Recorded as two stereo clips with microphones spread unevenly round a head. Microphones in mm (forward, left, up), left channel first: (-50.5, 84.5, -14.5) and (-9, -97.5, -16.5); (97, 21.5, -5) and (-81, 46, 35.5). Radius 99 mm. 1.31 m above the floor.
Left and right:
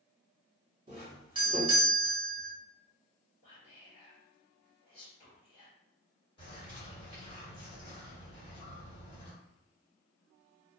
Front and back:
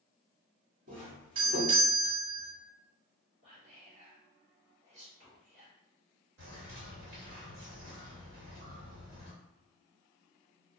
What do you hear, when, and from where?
0.9 s a doorbell: 135° right, 1.4 m
3.4 s whispering: 155° left, 1.3 m
6.4 s a bird: 165° left, 1.5 m